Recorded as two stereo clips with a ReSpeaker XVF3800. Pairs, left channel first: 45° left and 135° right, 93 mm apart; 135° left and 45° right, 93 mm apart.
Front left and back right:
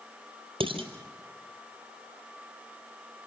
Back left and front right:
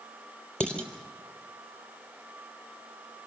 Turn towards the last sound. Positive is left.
turn(degrees=-145)